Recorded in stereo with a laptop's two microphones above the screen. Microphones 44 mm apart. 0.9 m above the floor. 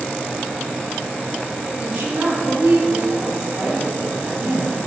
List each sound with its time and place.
1.8 s a woman speaking: 45° right (ahead or behind), 5.5 m